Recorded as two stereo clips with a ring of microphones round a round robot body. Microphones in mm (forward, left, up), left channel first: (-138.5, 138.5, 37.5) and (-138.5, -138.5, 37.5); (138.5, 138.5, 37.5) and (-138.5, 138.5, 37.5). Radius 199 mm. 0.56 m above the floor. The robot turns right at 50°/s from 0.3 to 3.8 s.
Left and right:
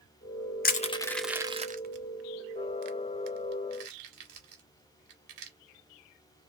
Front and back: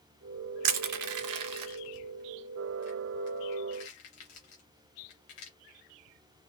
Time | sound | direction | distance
0.6 | crushing | 150° left | 0.6 m